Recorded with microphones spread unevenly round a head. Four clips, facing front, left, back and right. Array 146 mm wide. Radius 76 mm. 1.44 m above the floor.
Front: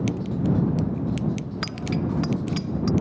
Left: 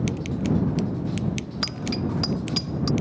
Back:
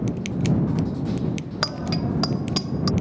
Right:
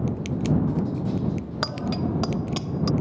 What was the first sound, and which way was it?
A bicycle bell, 140° right.